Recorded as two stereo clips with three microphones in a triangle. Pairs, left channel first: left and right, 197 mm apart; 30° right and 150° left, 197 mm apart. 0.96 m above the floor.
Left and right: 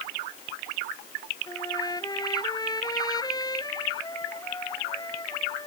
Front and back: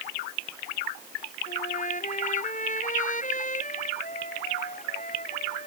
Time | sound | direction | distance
1.5 | a trumpet | 20° left | ?